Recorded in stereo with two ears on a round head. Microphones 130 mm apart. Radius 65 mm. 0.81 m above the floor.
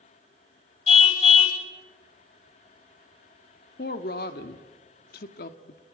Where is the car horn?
40° left (ahead or behind), 2 m.